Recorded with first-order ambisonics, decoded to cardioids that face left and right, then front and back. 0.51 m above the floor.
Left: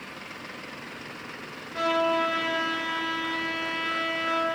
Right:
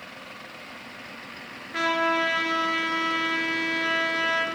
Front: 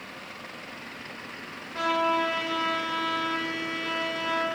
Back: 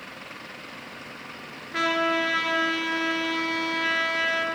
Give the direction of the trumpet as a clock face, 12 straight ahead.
5 o'clock.